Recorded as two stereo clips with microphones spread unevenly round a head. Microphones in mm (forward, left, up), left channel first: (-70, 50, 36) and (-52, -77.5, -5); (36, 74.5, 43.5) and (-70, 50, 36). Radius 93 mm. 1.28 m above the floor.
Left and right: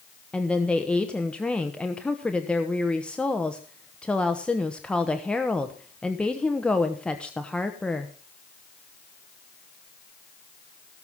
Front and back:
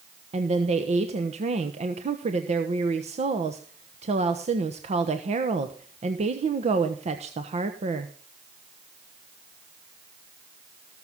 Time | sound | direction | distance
0.3 | a woman speaking | 175° right | 1.2 m